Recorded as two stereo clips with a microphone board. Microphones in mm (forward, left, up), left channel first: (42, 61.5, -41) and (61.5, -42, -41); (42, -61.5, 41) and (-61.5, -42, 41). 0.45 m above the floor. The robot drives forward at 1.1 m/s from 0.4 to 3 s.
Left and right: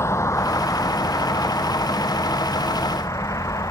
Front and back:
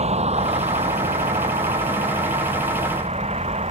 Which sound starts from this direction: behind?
A vehicle, at 0.0 s.